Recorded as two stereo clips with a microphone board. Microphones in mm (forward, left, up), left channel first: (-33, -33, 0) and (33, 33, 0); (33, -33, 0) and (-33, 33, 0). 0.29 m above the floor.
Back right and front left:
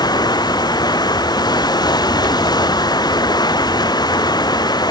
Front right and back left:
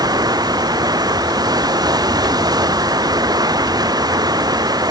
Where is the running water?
Straight behind.